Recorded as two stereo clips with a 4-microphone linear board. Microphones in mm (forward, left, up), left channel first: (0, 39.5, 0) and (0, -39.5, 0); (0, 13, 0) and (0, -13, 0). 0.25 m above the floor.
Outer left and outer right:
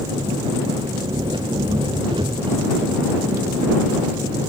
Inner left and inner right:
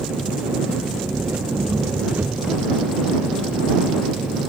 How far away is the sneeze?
No sneeze in this recording.